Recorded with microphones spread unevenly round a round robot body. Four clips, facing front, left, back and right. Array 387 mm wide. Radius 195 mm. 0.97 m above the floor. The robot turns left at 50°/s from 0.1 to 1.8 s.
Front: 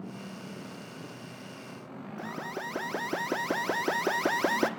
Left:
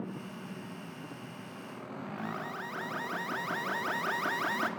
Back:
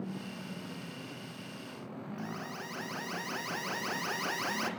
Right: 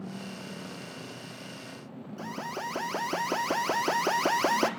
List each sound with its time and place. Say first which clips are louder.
2.2 s an alarm: right 5 dB, front 7 dB; 35° right, 1.1 m